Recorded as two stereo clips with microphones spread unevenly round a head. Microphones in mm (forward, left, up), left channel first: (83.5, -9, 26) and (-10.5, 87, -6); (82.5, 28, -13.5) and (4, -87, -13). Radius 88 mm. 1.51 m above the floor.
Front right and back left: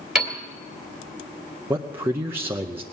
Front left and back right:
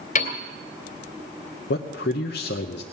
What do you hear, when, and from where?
0.1 s a piano: 40° left, 2 m
1.7 s a man speaking: 65° left, 0.7 m